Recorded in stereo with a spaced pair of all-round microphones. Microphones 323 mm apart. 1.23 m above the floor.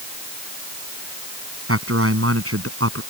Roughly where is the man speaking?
Right.